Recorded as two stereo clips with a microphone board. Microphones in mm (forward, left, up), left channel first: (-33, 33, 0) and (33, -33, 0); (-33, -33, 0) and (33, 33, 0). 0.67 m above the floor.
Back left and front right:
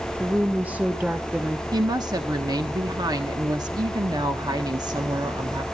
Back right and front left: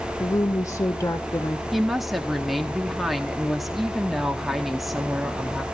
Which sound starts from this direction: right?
A woman speaking, at 0.2 s.